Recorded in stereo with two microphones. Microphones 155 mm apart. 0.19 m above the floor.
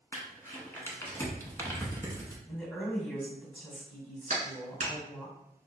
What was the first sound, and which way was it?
Crumpling, 15° left (ahead or behind).